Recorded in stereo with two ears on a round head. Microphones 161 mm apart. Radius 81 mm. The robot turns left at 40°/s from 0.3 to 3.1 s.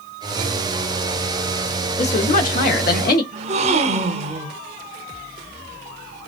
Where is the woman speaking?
130° left, 1.1 m; by 3.2 s 85° left, 1.1 m.